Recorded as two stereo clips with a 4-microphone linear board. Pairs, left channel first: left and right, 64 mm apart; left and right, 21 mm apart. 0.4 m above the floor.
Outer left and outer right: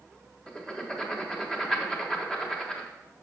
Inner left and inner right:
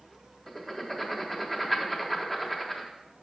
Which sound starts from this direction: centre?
Writing, at 0.5 s.